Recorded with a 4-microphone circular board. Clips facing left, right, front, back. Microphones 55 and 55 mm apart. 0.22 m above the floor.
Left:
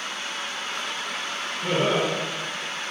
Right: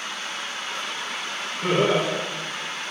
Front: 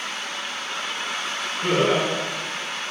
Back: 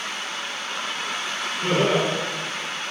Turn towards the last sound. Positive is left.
turn(degrees=-70)